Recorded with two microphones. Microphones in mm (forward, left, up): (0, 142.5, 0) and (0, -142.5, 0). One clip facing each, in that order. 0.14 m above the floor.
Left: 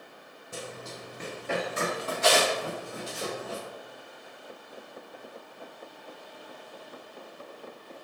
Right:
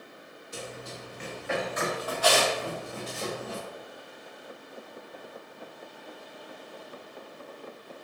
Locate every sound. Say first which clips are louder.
0.5 s running footsteps: even; 60° left (ahead or behind), 1.5 m; by 3.6 s 5° left (ahead or behind), 1.8 m